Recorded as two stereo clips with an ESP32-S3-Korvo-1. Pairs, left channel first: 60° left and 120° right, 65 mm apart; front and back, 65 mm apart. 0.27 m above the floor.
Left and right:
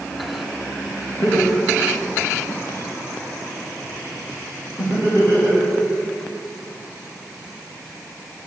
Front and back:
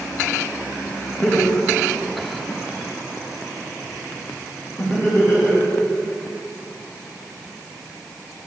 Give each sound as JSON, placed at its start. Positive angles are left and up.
{"t": 1.2, "sound": "laughter", "azimuth_deg": 65, "distance_m": 3.5}